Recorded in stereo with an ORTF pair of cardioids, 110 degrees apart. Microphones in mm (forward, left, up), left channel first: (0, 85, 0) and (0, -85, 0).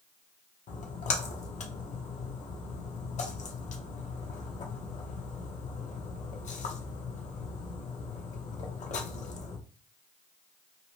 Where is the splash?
45° left, 0.9 m.